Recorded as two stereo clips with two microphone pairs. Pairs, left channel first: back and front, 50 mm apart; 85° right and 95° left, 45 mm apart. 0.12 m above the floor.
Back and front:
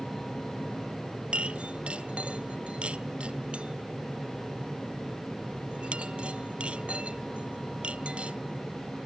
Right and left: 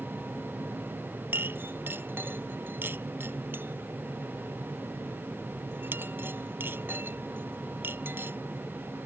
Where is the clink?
65° left.